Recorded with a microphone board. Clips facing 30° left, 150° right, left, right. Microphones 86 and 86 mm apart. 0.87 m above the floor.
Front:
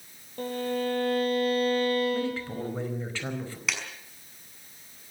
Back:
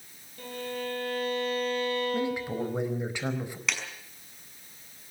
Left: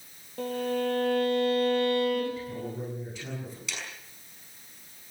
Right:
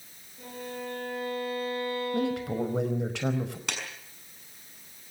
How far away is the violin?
About 7 m.